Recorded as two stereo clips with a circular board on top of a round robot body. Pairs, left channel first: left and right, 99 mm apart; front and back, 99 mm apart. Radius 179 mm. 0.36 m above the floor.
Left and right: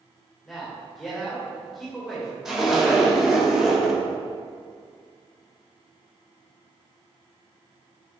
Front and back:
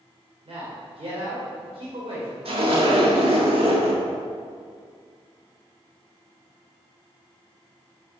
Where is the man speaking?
Straight behind, 2 m.